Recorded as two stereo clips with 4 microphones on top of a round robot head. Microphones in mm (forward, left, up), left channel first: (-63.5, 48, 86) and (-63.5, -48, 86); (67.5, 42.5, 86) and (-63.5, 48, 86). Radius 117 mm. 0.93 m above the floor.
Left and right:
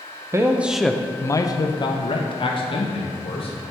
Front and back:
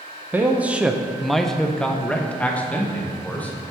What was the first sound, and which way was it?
A man speaking, 120° right.